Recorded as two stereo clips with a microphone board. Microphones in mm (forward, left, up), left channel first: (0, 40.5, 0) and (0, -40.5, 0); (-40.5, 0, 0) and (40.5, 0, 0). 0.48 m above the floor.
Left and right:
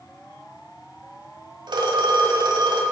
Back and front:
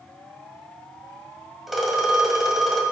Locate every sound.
1.7 s a phone ringing: 90° right, 1.6 m